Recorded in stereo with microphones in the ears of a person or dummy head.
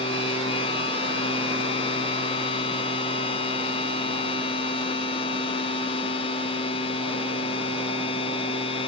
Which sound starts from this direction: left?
A machine running, at 0.0 s.